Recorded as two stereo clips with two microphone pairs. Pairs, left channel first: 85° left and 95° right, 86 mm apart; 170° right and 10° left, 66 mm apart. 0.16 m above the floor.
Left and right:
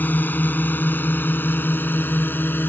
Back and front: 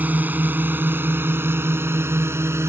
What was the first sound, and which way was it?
A drone, 40° left.